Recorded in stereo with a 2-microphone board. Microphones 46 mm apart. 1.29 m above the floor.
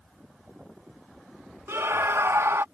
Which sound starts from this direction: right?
A scream, at 1.7 s.